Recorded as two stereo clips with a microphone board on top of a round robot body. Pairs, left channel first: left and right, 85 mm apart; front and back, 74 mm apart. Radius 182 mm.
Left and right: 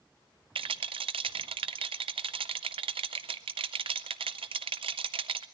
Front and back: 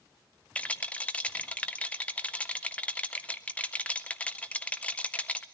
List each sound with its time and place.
0.6 s a rattle: 75° right, 0.6 m